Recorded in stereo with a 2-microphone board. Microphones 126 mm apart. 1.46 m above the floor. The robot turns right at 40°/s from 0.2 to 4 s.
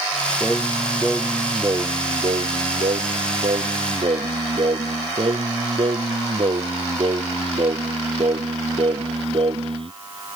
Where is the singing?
165° left; by 9.9 s 50° right.